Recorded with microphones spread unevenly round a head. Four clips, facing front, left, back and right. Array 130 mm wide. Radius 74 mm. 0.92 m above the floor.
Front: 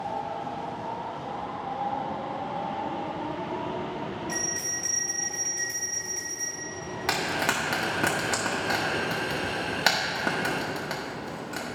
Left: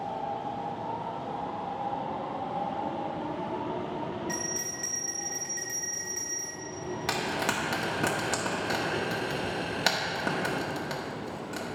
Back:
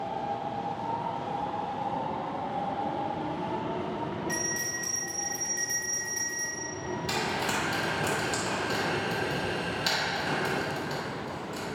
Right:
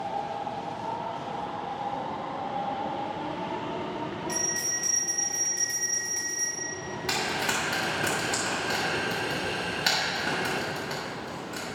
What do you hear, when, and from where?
4.3 s a bell: straight behind, 2.0 m
7.1 s frying: 55° left, 1.1 m